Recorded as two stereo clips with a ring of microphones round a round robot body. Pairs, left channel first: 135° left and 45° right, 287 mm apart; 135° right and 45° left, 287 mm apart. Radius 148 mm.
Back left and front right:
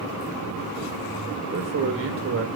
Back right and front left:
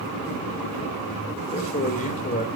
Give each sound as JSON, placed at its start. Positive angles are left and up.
{"t": 1.5, "sound": "a man speaking", "azimuth_deg": -80, "distance_m": 1.7}